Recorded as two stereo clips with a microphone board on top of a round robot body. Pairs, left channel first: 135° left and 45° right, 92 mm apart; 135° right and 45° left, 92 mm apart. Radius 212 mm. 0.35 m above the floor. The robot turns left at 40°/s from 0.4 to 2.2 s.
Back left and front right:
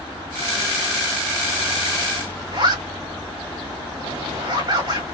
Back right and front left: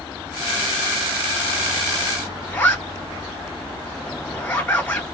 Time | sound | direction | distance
2.5 | a zipper | 65° right | 1.9 m